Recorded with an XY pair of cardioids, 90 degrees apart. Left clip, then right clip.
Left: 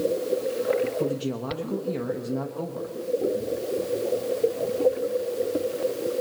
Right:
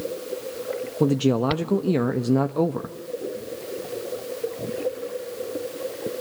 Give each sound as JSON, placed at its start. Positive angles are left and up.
{"t": 1.0, "sound": "a man speaking", "azimuth_deg": -65, "distance_m": 0.9}